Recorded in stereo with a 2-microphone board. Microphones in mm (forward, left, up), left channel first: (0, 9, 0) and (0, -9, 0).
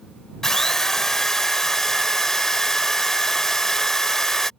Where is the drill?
25° left (ahead or behind).